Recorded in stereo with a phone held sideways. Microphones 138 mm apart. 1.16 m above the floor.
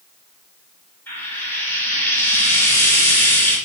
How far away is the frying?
About 0.9 m.